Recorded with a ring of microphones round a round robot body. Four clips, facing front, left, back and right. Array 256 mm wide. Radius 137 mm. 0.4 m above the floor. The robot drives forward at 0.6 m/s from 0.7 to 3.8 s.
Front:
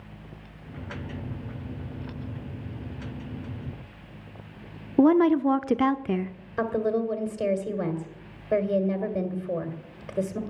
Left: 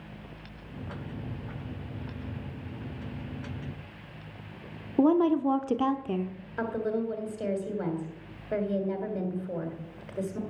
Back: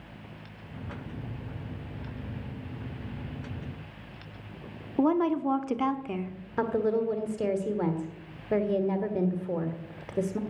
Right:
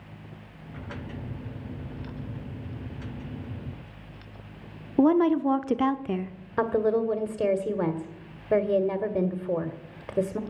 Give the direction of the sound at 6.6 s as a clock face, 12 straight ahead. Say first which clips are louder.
Right 6 dB, front 1 dB; 3 o'clock.